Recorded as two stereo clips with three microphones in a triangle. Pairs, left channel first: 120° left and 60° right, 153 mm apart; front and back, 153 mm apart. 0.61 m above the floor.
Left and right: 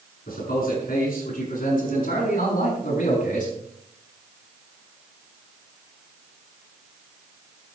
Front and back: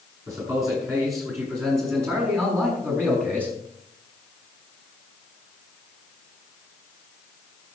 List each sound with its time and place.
0.3 s a man speaking: 110° left, 6.5 m; by 3.5 s 100° left, 4.5 m